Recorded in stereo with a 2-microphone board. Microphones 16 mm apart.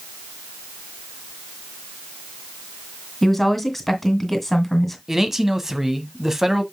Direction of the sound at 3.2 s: 5° left (ahead or behind).